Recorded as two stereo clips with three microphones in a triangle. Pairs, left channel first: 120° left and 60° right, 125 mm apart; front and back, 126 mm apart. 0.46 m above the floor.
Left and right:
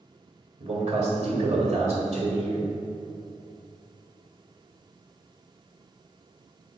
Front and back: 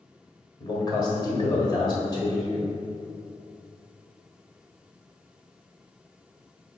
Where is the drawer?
No drawer in this recording.